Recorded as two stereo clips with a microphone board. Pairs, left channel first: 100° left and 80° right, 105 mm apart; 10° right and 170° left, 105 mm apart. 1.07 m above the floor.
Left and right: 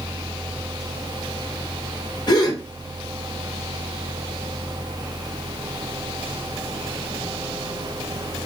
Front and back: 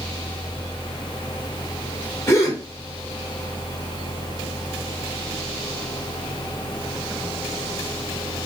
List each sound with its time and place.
2.3 s a gasp: 50° left, 1.2 m